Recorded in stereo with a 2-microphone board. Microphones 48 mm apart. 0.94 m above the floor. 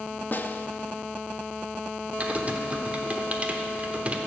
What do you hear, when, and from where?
0.3 s a snare drum: 40° left (ahead or behind), 0.5 m
2.2 s typing on a keyboard: 30° right (ahead or behind), 1.0 m